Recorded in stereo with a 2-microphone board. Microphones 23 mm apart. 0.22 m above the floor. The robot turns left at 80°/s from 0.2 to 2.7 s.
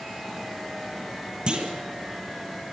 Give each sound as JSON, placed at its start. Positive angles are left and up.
{"t": 1.5, "sound": "a clunk", "side_deg": -35, "distance_m": 4.5}